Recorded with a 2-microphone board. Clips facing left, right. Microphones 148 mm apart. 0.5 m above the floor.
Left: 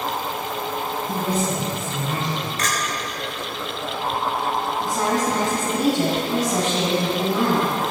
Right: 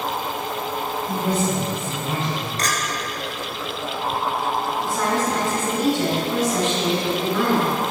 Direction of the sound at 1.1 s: 25° right (ahead or behind).